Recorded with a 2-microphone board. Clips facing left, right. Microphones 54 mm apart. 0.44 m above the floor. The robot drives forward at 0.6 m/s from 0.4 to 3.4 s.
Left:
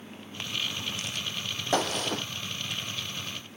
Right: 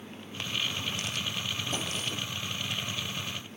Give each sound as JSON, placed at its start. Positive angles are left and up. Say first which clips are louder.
{"t": 1.7, "sound": "a gunshot", "louder": "left 7 dB", "side_deg": 80}